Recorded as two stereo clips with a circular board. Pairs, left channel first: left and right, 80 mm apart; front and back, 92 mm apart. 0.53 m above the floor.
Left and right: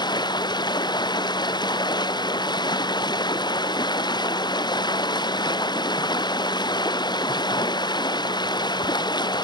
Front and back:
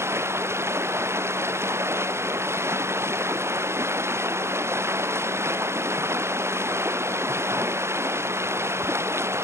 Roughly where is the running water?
Behind left.